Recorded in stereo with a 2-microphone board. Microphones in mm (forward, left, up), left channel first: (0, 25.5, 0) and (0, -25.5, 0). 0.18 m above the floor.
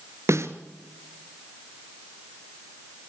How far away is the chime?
I don't hear a chime.